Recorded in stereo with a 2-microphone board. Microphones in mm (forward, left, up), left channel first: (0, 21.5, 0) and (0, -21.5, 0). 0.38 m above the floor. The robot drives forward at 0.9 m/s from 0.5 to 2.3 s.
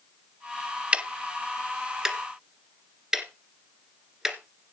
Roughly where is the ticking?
Right.